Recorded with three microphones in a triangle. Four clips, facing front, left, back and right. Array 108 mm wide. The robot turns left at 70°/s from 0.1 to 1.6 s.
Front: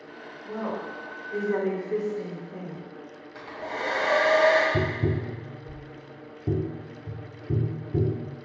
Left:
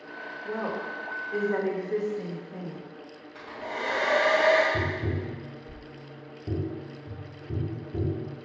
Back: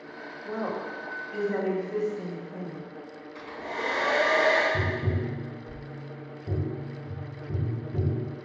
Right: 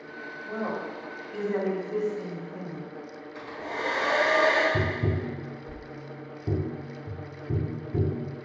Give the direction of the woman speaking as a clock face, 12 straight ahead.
8 o'clock.